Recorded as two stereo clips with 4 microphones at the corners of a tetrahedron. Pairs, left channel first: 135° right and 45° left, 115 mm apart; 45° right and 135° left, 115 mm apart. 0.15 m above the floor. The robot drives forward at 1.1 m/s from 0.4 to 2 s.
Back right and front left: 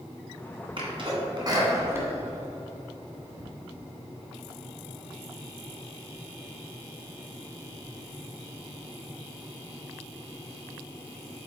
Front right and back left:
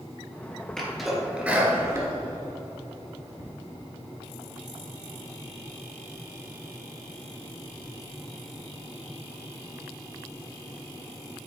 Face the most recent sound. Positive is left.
turn(degrees=100)